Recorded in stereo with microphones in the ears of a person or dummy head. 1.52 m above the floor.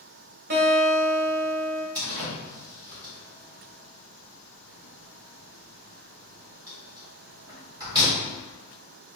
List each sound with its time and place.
0.5 s a guitar: 40° right (ahead or behind), 0.7 m
1.9 s a door slam: 20° right (ahead or behind), 1.4 m